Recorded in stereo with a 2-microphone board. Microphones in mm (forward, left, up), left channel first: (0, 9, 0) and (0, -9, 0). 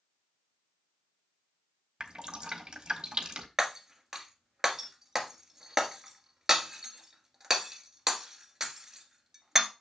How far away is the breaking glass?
About 1.5 m.